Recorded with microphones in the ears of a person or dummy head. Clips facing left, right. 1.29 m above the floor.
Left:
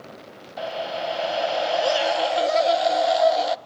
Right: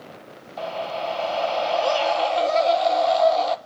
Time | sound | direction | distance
0.6 | a scream | 10° left (ahead or behind) | 1.1 m